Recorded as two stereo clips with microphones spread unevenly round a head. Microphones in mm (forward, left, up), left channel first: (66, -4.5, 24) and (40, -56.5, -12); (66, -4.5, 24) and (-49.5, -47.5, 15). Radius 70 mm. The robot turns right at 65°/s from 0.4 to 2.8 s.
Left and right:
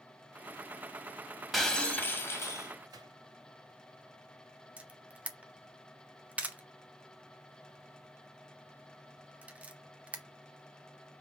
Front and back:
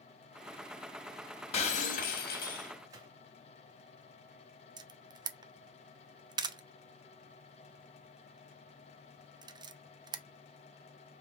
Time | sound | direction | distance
1.5 | breaking glass | 15° right | 1.3 m
2.9 | a gunshot | 100° right | 1.8 m
4.8 | a camera shutter | 120° right | 0.6 m